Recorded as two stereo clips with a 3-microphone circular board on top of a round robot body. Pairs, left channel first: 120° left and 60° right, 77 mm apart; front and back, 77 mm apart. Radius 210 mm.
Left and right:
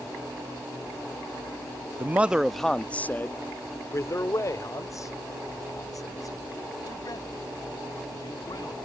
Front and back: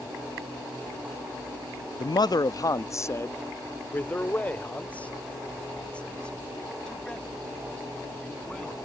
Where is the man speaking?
Straight ahead; by 8.7 s 80° left.